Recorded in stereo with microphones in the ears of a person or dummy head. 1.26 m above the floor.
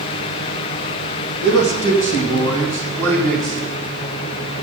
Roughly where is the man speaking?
Left.